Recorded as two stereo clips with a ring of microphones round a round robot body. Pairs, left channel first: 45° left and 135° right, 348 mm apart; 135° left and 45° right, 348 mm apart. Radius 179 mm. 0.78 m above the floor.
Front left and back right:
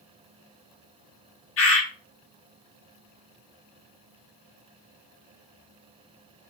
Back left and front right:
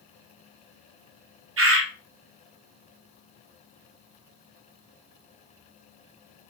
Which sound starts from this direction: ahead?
A bird, at 1.6 s.